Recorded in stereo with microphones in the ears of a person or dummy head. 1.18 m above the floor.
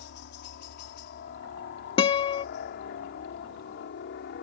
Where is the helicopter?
55° left (ahead or behind).